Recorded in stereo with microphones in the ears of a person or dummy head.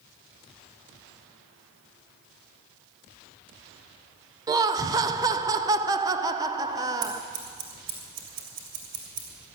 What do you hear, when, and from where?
4.5 s laughter: 20° right (ahead or behind), 0.6 m
7.0 s scissors: 70° right (ahead or behind), 5.5 m